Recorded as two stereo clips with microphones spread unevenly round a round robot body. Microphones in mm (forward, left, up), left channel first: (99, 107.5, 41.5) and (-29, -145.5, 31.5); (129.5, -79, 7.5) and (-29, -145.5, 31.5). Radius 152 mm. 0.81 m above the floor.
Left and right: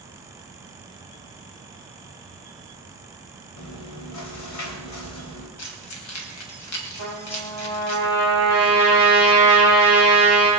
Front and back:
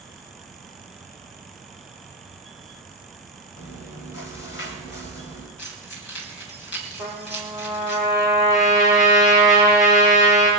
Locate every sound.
3.6 s chewing: 35° left, 2.5 m
5.6 s keys jangling: 30° left, 3 m
7.0 s a trumpet: 40° left, 10 m